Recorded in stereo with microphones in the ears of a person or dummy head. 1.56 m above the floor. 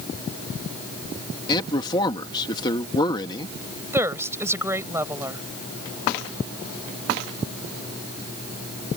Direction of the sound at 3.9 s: 10° right (ahead or behind).